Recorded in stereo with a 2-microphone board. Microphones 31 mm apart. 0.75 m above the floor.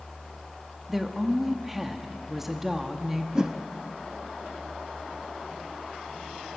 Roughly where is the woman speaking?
Centre.